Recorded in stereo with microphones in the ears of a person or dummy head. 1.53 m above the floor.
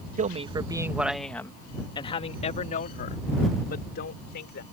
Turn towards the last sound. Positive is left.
turn(degrees=65)  # may be behind; listen again after turning